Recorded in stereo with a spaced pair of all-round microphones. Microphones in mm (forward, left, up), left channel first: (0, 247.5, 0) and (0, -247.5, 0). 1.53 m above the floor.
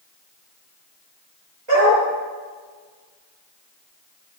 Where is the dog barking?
65° right (ahead or behind), 9 m.